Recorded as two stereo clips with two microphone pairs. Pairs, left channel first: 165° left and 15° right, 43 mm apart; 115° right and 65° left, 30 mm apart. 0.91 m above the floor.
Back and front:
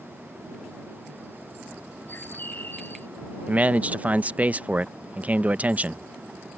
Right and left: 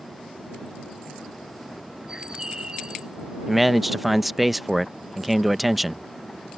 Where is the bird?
130° left.